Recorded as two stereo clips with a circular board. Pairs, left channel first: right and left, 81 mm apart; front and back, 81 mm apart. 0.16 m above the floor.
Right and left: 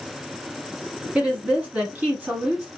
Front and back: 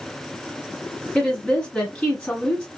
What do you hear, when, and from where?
1.1 s a woman speaking: 50° left, 1.1 m